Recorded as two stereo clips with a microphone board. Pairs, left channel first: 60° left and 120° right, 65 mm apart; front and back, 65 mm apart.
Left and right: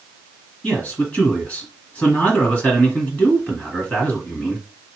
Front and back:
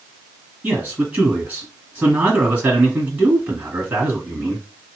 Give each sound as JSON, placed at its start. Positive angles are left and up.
{"t": 0.6, "sound": "a man speaking", "azimuth_deg": 120, "distance_m": 1.9}